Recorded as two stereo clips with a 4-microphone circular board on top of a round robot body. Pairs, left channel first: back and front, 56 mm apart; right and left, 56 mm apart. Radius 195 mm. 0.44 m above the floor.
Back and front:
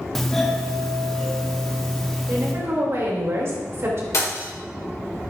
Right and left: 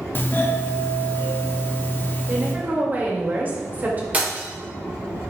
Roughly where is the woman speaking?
Ahead left.